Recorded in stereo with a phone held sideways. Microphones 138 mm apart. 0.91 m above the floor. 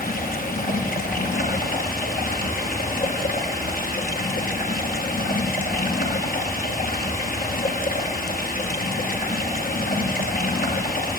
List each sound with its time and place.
0.0 s running water: 85° left, 6.5 m